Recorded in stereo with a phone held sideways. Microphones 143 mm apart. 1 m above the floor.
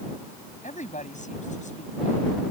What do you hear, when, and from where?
0.6 s a woman speaking: 60° left (ahead or behind)